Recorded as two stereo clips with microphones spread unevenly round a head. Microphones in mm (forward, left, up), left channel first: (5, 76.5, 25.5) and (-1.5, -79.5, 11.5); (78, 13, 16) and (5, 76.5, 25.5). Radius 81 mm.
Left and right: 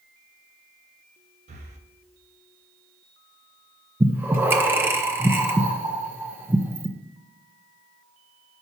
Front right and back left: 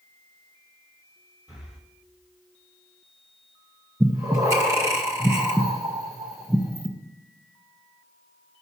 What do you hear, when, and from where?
1.5 s breathing: 140° right, 0.9 m
4.0 s breathing: 170° right, 0.6 m